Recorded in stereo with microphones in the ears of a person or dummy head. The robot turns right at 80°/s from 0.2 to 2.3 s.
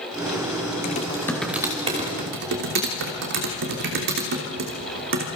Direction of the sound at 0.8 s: 50° left (ahead or behind).